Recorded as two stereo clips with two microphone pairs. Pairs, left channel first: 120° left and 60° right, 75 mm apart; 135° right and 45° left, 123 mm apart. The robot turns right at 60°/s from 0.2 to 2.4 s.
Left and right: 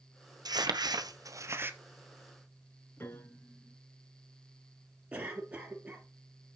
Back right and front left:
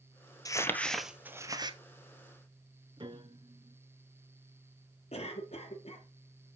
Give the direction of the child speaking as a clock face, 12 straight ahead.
I don't hear a child speaking.